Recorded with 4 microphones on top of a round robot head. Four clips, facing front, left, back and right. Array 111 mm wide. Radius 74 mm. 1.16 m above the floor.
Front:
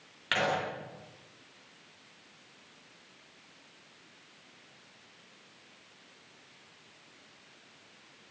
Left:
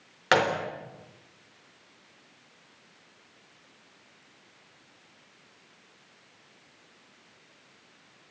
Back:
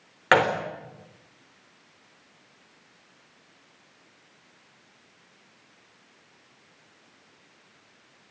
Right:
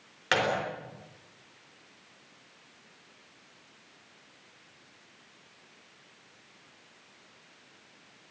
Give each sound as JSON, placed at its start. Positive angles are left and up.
{"t": 0.3, "sound": "a gunshot", "azimuth_deg": 160, "distance_m": 3.5}